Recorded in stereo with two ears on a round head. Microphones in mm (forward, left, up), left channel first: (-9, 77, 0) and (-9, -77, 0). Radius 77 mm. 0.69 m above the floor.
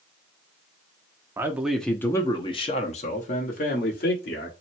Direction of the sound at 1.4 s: 15° right (ahead or behind).